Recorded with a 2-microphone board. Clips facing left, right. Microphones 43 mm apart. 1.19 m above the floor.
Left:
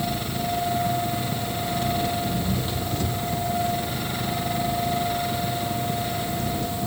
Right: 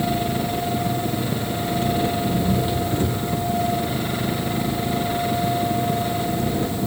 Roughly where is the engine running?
Right.